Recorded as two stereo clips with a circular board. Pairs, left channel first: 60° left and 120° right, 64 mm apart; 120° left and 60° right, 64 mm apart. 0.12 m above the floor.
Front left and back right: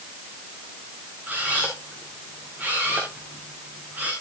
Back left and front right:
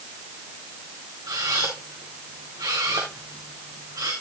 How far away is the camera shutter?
About 4 m.